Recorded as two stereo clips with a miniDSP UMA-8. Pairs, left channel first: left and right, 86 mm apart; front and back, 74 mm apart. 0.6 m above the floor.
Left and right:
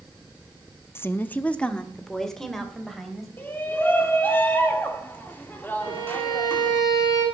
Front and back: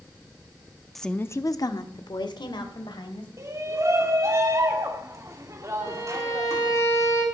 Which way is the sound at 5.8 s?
45° left.